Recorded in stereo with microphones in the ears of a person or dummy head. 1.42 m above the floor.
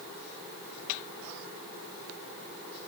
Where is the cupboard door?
No cupboard door in this recording.